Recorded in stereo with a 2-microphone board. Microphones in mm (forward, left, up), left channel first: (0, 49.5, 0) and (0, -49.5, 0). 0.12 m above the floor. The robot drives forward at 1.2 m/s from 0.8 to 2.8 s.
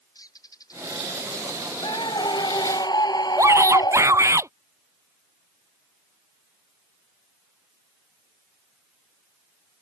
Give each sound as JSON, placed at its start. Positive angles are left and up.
{"t": 0.1, "sound": "a bird", "side_deg": 40}
{"t": 1.8, "sound": "a scream", "side_deg": 50}
{"t": 3.4, "sound": "a shout", "side_deg": -30}